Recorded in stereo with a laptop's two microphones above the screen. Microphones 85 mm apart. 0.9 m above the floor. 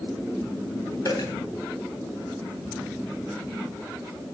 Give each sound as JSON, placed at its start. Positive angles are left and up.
{"t": 1.1, "sound": "a dropped coin", "side_deg": 45, "distance_m": 3.0}